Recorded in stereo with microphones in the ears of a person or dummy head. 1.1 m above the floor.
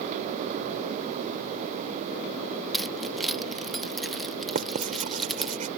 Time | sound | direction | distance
2.7 | keys jangling | centre (ahead or behind) | ?
4.5 | writing | 35° right (ahead or behind) | ?